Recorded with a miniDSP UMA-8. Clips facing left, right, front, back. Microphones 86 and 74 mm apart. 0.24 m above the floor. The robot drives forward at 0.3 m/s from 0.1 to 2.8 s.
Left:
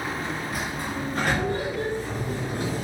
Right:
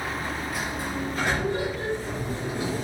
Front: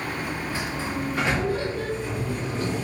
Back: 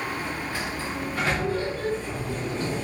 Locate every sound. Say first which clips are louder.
0.5 s a sliding door: even, front 2 dB; 60° left, 2 m; by 2.9 s 85° left, 1.9 m